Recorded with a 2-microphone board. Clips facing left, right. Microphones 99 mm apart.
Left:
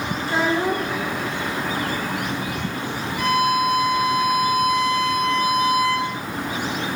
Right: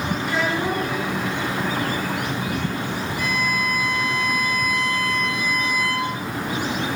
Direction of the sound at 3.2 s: 65° left (ahead or behind).